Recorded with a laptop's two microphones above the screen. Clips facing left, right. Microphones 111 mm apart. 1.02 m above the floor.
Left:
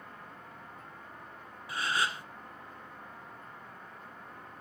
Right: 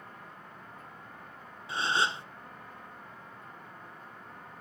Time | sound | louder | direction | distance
1.7 | a gasp | right 3 dB | 25° right (ahead or behind) | 0.6 m